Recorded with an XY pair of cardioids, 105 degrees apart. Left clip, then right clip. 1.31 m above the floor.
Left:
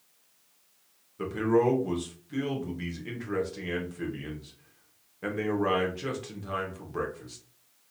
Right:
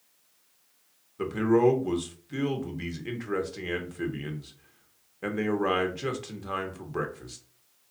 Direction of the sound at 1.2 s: 25° right.